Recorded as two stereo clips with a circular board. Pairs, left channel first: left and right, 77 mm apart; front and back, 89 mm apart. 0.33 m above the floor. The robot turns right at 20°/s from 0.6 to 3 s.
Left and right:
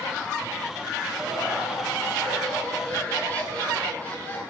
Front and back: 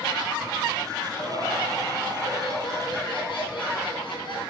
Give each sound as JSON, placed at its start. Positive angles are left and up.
{"t": 1.2, "sound": "laughter", "azimuth_deg": -20, "distance_m": 4.5}